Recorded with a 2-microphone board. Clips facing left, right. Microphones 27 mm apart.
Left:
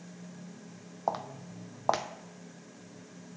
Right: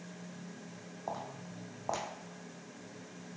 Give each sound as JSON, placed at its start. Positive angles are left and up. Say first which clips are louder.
{"t": 1.1, "sound": "footsteps", "louder": "left 7 dB", "side_deg": 55, "distance_m": 0.6}